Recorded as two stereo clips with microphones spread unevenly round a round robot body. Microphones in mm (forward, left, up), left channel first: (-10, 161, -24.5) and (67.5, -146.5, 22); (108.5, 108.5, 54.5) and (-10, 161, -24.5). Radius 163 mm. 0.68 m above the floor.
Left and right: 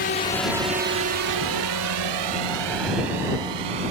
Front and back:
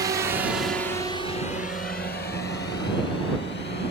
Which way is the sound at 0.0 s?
155° left.